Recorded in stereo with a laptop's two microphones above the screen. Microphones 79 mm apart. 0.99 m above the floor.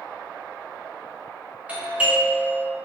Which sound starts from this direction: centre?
A doorbell, at 1.7 s.